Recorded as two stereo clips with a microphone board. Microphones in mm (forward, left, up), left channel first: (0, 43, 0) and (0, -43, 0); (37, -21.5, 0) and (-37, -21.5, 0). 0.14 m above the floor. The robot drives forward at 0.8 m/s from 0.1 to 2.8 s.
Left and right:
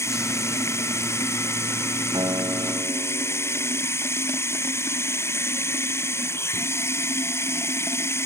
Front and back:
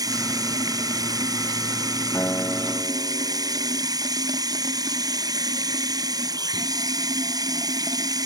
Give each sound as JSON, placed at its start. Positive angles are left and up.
{"t": 0.0, "sound": "running water", "azimuth_deg": 150}
{"t": 2.1, "sound": "a guitar", "azimuth_deg": -60}